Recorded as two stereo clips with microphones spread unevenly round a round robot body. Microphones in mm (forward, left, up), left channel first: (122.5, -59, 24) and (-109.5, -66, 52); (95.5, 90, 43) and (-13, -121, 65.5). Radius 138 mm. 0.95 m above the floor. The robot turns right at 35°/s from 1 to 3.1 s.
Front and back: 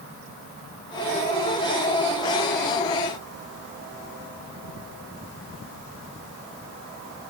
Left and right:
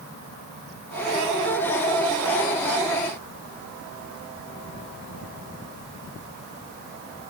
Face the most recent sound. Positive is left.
No sound to turn to.